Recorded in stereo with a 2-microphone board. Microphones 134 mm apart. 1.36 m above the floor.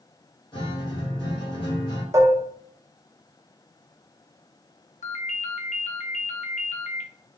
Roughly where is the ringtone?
Left.